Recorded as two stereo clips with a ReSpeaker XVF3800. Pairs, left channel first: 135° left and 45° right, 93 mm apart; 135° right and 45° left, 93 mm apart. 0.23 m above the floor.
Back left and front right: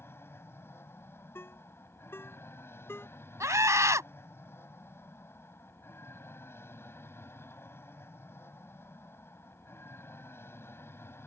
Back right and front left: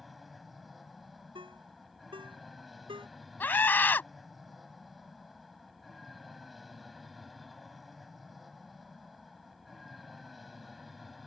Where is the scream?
75° right.